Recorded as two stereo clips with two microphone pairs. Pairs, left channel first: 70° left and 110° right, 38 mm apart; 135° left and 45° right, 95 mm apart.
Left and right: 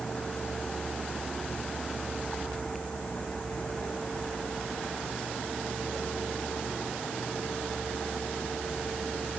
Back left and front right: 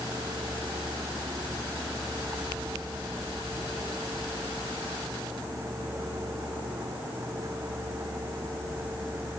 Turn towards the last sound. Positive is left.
turn(degrees=15)